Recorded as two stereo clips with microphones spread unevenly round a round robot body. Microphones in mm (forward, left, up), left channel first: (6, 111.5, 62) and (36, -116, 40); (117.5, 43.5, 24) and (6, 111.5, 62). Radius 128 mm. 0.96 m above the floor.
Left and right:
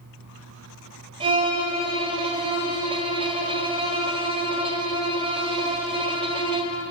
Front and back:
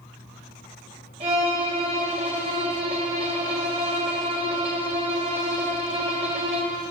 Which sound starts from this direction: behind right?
A violin, at 1.2 s.